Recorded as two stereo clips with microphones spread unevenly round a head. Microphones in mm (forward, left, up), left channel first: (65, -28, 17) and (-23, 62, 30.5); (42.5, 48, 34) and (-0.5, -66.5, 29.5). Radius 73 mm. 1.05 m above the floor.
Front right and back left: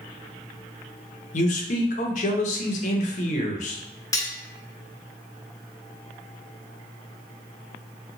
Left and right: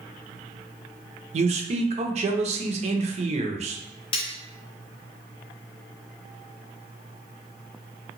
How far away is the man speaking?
About 0.6 m.